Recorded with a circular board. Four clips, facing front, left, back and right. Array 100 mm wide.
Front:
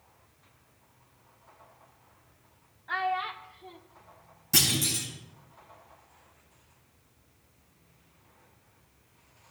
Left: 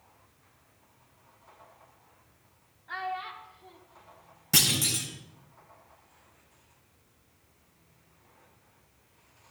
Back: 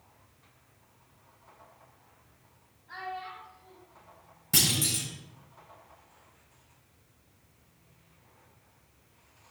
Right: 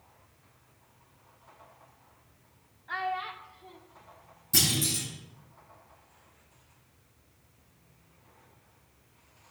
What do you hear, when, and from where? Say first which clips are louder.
2.9 s a child speaking: right 2 dB, front 9 dB; 10° right, 1.1 m
4.5 s a clunk: even, front 1 dB; 100° left, 4 m